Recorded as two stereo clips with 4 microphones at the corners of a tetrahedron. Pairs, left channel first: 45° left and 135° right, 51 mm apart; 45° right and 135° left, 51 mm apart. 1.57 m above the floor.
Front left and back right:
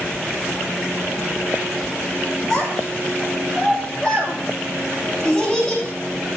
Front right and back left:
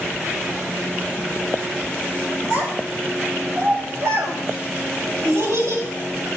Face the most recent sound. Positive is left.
turn(degrees=125)